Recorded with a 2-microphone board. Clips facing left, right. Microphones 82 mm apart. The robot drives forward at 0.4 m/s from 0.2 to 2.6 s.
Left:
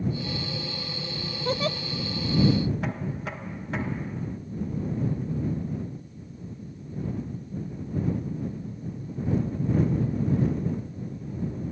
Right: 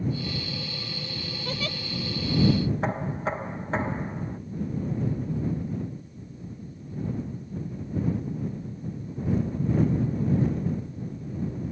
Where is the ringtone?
I don't hear a ringtone.